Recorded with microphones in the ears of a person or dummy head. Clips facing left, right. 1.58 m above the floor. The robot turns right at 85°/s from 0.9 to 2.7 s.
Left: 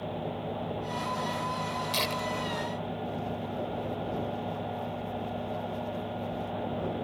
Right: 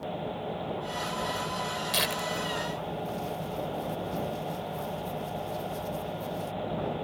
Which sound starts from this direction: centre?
Tearing paper, at 1.9 s.